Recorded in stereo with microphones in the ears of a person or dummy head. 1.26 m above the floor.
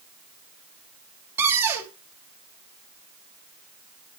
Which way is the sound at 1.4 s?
10° right (ahead or behind).